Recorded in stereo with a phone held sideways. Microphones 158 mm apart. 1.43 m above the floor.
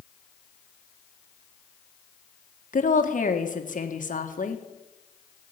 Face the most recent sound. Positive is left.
turn(degrees=55)  # may be behind; listen again after turning